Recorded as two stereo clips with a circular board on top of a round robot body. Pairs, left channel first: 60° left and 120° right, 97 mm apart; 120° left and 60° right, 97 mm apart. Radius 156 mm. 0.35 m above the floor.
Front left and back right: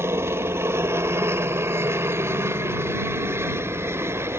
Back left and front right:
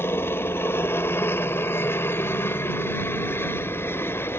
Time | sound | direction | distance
0.0 | a helicopter | straight behind | ?